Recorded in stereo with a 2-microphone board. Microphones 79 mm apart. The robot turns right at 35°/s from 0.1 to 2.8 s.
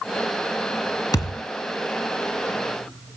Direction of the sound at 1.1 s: 55° left (ahead or behind).